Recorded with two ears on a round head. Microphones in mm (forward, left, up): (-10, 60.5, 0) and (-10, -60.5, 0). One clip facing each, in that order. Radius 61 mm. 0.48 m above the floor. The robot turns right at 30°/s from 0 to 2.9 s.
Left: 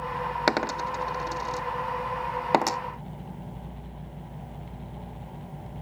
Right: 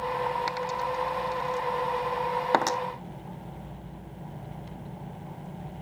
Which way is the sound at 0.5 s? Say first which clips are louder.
Left 3 dB; 75° left (ahead or behind).